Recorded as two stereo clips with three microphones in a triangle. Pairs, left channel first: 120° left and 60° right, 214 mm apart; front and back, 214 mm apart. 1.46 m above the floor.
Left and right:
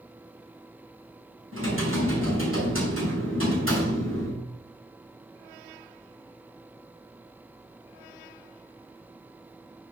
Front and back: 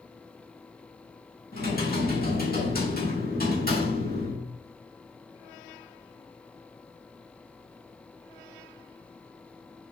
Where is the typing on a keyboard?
45° right, 4.5 m.